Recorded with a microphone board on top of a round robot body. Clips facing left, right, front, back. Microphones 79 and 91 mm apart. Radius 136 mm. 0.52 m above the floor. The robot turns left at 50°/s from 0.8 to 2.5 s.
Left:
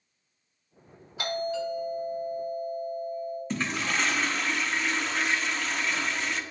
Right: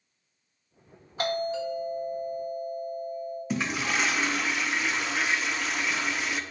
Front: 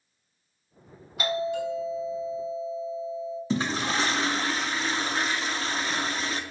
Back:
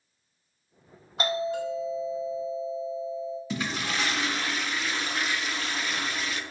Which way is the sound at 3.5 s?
10° right.